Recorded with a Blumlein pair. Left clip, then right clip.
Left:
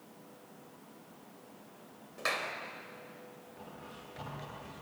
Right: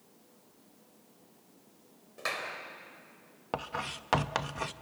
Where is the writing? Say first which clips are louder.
Right 16 dB; 45° right, 0.9 m.